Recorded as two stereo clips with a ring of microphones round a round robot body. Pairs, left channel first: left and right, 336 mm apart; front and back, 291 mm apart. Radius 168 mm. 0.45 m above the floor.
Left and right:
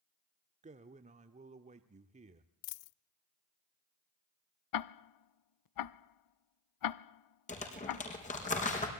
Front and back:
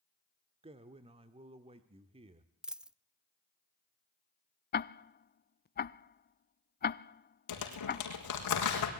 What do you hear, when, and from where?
0.6 s a man speaking: 135° right, 1.1 m
2.6 s a dropped coin: 95° left, 0.5 m
4.7 s ticking: 60° left, 0.6 m
7.5 s crumpling: 20° left, 4.5 m